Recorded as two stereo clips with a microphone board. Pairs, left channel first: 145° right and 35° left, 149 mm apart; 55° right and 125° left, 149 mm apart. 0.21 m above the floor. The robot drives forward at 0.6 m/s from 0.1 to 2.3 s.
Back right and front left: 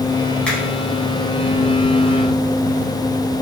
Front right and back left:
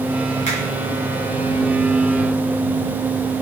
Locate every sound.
0.5 s a finger snap: 65° right, 1.2 m; by 0.6 s 70° right, 1.2 m